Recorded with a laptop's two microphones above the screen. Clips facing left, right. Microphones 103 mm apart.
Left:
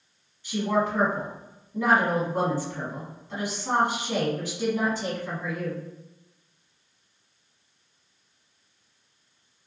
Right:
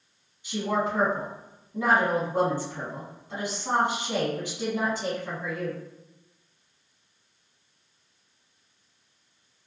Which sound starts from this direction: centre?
A woman speaking, at 0.4 s.